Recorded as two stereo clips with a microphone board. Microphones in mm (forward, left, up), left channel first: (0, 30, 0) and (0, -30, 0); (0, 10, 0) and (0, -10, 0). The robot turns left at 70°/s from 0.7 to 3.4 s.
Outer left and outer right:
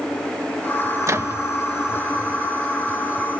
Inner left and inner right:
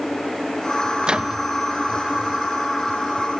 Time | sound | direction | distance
1.0 | a microwave | 60° right (ahead or behind) | ?